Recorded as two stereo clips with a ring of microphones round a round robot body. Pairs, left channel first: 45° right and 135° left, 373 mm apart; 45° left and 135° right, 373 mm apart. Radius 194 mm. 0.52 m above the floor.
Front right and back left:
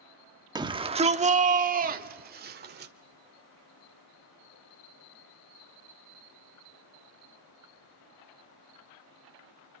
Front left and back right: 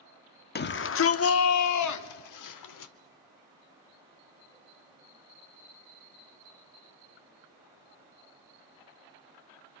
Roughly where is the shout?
Left.